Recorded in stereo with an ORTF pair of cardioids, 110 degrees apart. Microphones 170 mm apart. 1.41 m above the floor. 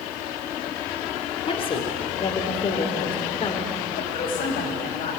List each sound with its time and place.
1.5 s a woman speaking: 35° left, 3.5 m
4.0 s a woman speaking: 65° left, 6 m